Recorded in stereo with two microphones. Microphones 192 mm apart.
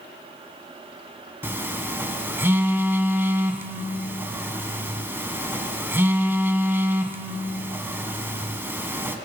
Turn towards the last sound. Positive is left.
turn(degrees=-10)  # may be behind; listen again after turning